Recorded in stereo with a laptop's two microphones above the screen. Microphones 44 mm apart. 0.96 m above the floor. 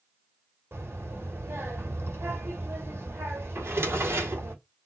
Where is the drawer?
70° right (ahead or behind), 1.4 m.